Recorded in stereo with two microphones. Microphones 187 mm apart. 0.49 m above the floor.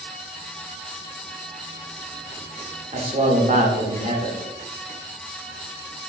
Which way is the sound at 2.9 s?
35° right (ahead or behind).